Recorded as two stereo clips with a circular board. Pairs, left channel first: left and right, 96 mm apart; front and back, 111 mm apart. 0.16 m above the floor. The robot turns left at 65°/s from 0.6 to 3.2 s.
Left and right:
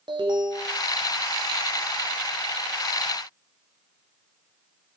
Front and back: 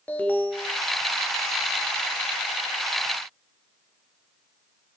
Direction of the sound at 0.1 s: 75° right.